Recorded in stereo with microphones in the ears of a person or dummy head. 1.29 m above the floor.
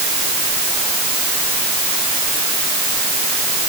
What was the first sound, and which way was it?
Only background noise.